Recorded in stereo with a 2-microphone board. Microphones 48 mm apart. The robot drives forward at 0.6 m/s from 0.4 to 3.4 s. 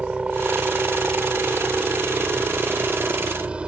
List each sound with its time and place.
0.0 s a helicopter: 25° right (ahead or behind); by 3.7 s 20° right (ahead or behind)